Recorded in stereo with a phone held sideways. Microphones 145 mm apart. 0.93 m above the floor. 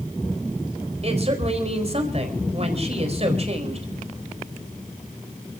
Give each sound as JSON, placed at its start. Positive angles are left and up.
{"t": 1.0, "sound": "a woman speaking", "side_deg": -45, "distance_m": 4.5}